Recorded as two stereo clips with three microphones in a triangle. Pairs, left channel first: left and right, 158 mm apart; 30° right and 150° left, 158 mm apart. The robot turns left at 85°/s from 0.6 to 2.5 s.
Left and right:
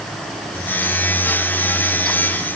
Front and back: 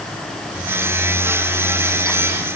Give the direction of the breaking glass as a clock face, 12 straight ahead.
No breaking glass in this recording.